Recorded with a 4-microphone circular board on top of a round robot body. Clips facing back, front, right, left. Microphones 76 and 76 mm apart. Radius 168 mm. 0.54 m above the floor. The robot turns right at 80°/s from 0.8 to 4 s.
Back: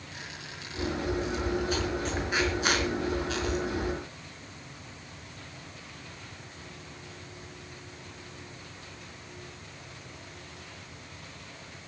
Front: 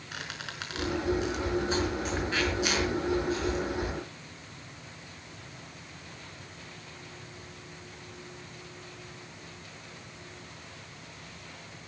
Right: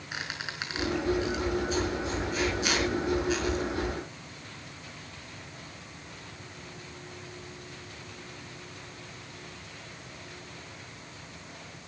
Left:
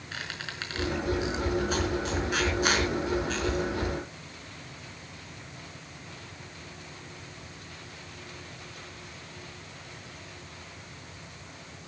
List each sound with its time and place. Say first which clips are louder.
0.1 s a squeak: front 5 dB, right 1 dB; 15° right, 4.5 m; by 3.6 s 145° right, 4.5 m